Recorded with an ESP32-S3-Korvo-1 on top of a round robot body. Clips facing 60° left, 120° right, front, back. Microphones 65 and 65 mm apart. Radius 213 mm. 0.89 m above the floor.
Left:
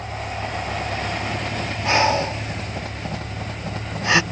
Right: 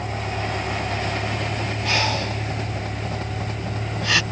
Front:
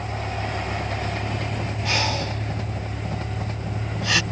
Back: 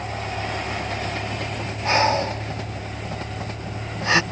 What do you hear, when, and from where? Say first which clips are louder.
0.0 s a vehicle: right 1 dB, back 1 dB; 100° right; by 4.3 s 90° right
1.9 s breathing: left 6 dB, back 7 dB; 125° left